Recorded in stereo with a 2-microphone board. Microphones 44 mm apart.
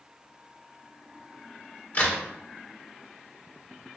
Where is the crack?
35° left (ahead or behind), 2 m.